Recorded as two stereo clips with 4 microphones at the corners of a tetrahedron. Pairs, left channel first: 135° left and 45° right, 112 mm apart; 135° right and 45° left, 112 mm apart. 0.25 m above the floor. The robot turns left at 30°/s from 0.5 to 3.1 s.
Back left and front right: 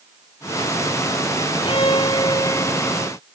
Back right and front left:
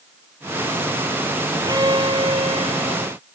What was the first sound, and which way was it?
A violin, 100° left.